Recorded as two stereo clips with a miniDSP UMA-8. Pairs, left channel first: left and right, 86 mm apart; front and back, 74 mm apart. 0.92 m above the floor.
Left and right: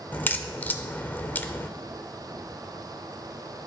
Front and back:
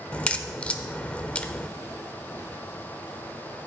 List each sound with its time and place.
0.1 s a crack: 55° left, 0.6 m